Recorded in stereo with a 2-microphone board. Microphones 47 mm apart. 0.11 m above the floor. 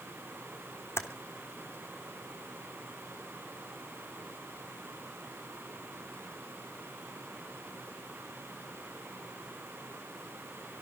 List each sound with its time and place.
1.0 s typing on a keyboard: 70° left (ahead or behind), 1.4 m